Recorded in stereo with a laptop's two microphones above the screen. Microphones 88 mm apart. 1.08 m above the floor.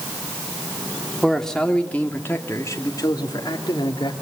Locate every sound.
1.2 s a man speaking: centre (ahead or behind), 2.5 m; by 4.1 s 70° left (ahead or behind), 2.5 m